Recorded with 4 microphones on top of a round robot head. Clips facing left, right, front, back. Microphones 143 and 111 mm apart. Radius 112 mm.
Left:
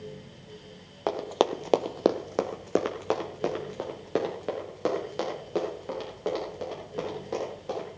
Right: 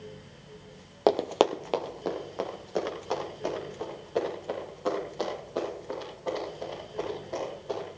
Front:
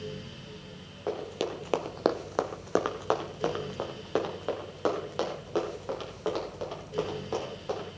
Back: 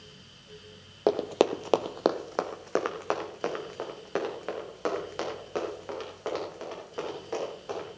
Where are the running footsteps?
140° right, 0.9 m; by 7.9 s 70° left, 9.5 m.